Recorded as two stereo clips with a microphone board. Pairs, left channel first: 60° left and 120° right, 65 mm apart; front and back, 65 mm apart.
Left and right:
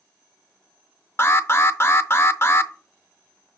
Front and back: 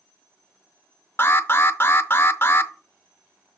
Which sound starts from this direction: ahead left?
An alarm, at 1.2 s.